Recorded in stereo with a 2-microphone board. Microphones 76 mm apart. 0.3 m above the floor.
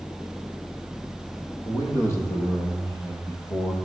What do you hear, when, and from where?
1.6 s a man speaking: 35° left (ahead or behind), 8 m; by 3.8 s 50° left (ahead or behind), 6 m